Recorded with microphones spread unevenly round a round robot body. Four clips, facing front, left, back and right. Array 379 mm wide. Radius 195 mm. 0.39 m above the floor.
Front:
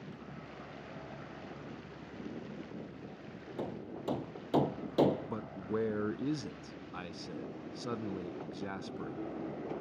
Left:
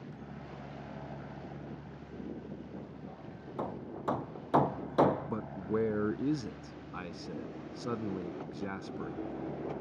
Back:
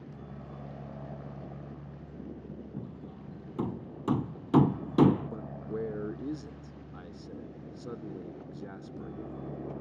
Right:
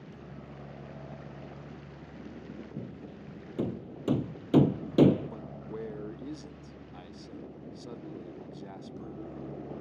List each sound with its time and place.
0.0 s a helicopter: 165° right
2.8 s hammering: 135° right
5.3 s a man speaking: 55° left